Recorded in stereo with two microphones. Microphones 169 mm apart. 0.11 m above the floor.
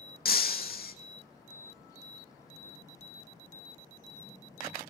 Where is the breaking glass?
70° left (ahead or behind), 0.8 m.